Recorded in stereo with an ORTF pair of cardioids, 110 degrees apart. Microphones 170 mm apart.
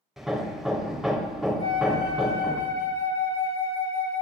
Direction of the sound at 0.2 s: Straight ahead.